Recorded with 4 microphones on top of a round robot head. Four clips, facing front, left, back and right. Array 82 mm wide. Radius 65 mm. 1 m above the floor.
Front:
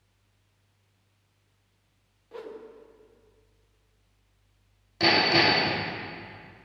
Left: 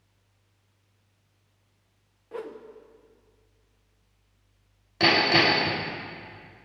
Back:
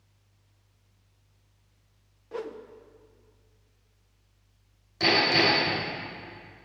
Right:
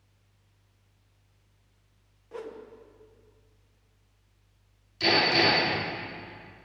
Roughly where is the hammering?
Left.